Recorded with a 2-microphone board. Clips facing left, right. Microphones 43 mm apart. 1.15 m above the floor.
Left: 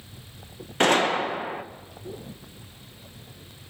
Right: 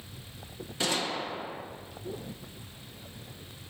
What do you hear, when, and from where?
0.8 s a gunshot: 50° left (ahead or behind), 1.0 m